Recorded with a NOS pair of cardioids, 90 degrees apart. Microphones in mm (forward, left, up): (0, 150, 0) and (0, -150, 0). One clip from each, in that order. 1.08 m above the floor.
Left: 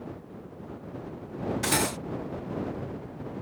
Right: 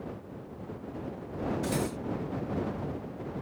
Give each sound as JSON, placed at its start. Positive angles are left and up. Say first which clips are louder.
{"t": 1.6, "sound": "cutlery clinking", "louder": "left 5 dB", "azimuth_deg": 65}